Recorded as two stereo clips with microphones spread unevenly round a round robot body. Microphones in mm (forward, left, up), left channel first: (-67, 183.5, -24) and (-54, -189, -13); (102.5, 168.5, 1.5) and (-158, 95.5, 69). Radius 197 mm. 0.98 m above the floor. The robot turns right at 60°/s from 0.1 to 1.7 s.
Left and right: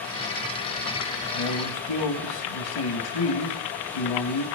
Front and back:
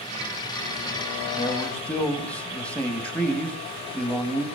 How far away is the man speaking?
About 2.5 m.